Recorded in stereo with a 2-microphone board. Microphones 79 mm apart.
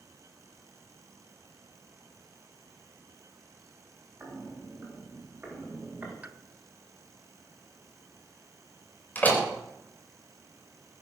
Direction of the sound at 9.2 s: 20° left (ahead or behind).